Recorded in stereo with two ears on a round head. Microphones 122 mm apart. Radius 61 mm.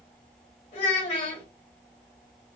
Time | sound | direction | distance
0.7 | a child speaking | 55° left (ahead or behind) | 2.5 m